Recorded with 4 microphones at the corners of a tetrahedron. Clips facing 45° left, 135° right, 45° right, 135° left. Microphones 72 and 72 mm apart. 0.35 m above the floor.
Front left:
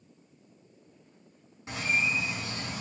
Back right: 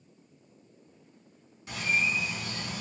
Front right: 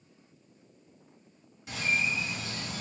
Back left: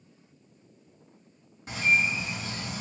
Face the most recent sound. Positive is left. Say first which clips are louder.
# even, back left 5 dB
turn(degrees=90)